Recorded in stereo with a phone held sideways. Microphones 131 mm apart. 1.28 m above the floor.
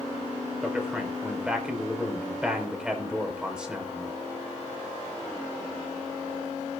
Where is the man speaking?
5° right (ahead or behind), 4.5 m.